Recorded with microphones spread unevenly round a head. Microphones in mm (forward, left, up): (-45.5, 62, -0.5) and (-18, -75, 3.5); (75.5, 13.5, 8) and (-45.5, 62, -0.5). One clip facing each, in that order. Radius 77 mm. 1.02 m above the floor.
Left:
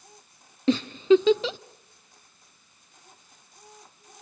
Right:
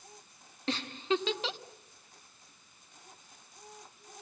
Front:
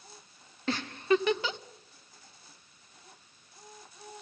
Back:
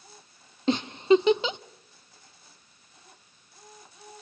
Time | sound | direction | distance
0.7 | a giggle | 90° left | 0.6 m